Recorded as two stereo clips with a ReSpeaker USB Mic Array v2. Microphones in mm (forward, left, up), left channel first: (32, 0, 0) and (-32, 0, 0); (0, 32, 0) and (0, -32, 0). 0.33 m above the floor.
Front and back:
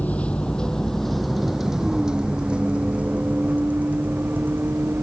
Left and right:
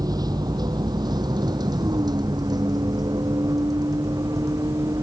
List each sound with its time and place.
0.0 s a vehicle: 70° right; by 5.0 s 120° right